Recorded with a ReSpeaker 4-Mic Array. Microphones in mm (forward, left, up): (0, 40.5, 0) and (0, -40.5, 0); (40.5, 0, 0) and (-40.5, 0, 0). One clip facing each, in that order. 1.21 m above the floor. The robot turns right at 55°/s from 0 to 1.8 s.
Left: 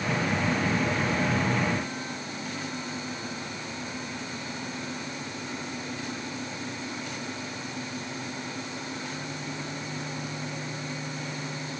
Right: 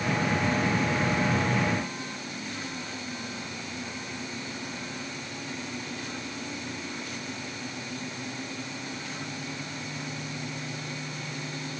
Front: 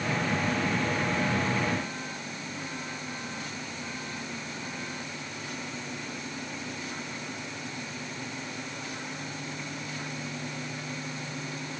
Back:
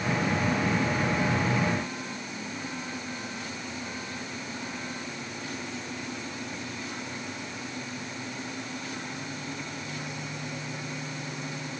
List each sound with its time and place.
Only background noise.